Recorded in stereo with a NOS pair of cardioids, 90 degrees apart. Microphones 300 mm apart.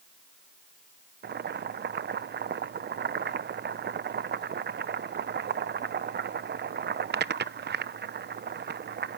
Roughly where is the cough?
No cough in this recording.